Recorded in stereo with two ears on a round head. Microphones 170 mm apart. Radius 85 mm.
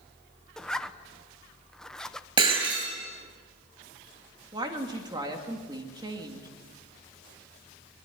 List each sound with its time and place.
0.6 s a zipper: 5° left (ahead or behind), 0.9 m
2.4 s breaking glass: 25° right (ahead or behind), 9.5 m
4.5 s a woman speaking: 25° right (ahead or behind), 2.5 m